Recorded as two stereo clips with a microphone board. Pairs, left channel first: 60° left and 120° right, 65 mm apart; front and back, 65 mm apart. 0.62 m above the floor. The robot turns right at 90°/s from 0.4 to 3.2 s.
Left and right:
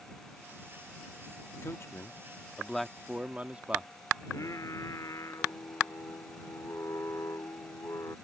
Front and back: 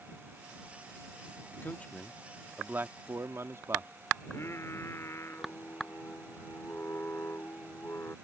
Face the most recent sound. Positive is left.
turn(degrees=40)